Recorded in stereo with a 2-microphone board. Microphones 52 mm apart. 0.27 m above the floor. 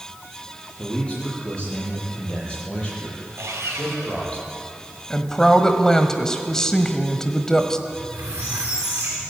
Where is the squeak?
50° right (ahead or behind), 7 m.